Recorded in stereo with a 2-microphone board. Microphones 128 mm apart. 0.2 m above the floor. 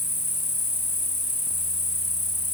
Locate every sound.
0.0 s an insect: 80° left, 0.8 m